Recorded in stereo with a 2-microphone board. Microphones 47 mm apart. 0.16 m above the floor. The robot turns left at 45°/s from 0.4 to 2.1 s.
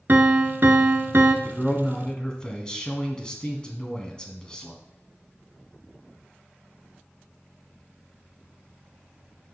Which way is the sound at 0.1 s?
60° right.